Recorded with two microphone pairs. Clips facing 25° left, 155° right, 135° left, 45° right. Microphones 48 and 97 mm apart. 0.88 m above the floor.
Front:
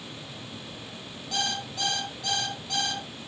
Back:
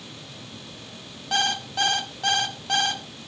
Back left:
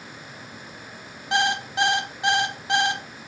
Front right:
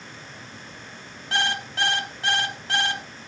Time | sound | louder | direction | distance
1.3 | an alarm clock | back 7 dB, back left 4 dB | 155° right | 1.3 m